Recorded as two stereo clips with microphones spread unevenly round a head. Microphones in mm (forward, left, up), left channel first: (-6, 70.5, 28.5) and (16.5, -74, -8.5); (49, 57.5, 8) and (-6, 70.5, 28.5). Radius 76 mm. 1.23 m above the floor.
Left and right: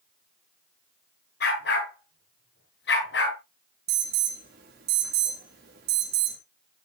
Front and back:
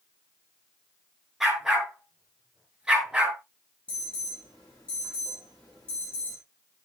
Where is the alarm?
85° right, 4.5 m.